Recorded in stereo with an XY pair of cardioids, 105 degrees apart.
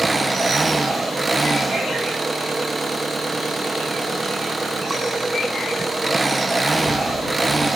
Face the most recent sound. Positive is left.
turn(degrees=-20)